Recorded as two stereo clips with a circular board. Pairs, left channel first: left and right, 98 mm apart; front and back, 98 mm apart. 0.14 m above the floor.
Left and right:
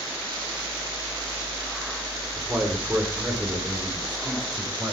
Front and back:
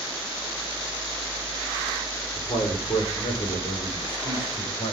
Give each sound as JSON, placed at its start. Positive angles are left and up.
{"t": 2.4, "sound": "a man speaking", "azimuth_deg": -10, "distance_m": 9.0}